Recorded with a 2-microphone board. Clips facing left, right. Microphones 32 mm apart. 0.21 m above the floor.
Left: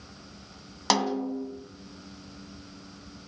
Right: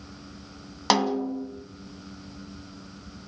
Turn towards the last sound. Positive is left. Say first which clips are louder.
# right 3 dB
turn(degrees=-10)  # may be behind; listen again after turning